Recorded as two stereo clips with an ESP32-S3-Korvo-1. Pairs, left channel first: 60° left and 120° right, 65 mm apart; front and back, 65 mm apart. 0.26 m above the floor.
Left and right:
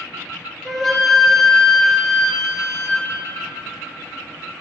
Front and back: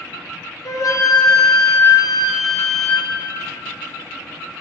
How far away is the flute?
About 1.3 m.